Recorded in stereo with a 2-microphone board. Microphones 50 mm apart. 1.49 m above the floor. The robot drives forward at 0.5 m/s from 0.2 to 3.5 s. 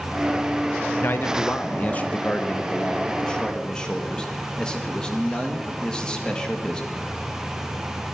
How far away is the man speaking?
About 0.7 m.